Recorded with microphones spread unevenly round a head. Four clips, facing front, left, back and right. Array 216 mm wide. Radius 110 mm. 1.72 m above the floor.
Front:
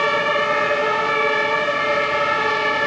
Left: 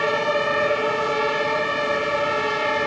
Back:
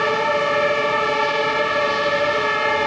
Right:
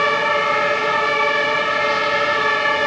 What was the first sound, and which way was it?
Only background noise.